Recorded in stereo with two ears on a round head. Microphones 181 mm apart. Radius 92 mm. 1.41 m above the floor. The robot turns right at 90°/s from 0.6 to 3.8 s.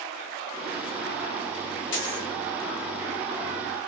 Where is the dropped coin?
95° left, 1.7 m; by 2.3 s 125° left, 1.7 m.